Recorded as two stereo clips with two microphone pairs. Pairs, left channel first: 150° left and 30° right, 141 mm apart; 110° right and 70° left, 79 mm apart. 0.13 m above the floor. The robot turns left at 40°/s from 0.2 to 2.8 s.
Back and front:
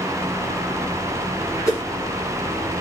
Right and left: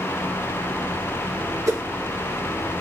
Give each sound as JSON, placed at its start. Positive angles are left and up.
{"t": 1.7, "sound": "a whoosh", "azimuth_deg": 90, "distance_m": 2.5}